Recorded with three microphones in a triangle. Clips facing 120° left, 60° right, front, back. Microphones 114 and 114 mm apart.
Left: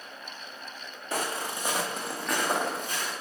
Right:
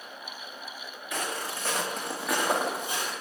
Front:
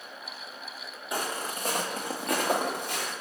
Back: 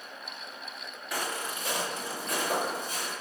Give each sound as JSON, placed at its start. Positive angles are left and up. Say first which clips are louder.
{"t": 1.1, "sound": "footsteps", "louder": "left 2 dB, front 2 dB", "azimuth_deg": 65, "distance_m": 0.8}